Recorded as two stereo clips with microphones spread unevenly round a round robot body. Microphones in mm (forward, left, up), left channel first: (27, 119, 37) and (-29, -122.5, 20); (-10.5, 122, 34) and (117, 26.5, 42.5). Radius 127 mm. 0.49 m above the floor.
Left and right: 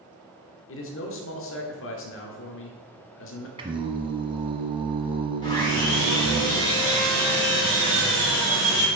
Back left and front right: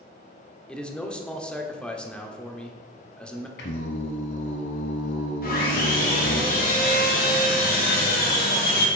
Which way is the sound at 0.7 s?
65° left.